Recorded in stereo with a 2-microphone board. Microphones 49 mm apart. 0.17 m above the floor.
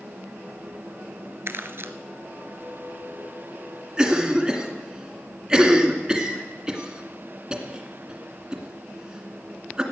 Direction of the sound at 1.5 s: 60° right (ahead or behind).